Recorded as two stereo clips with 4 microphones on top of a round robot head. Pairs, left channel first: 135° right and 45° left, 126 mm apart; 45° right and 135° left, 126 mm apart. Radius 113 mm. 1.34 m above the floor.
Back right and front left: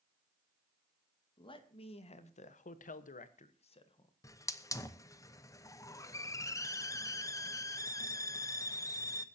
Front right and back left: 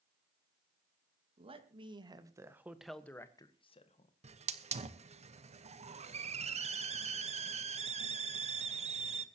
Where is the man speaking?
175° left, 2 m; by 4.1 s 80° right, 1.6 m.